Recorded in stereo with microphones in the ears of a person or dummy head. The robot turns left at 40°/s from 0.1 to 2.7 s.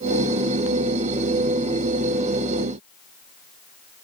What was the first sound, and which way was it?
Only background noise.